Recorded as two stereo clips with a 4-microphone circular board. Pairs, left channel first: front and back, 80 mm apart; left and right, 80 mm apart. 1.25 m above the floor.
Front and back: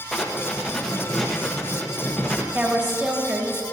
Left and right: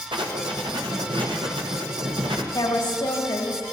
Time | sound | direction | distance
0.1 | writing | 85° right | 1.1 m
2.5 | a woman speaking | 115° left | 2.5 m